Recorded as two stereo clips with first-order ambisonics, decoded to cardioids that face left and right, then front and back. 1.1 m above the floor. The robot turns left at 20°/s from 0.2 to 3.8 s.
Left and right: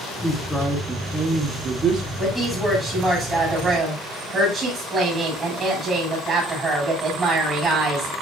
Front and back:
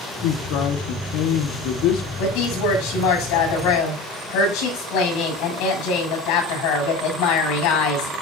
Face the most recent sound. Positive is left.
turn(degrees=-20)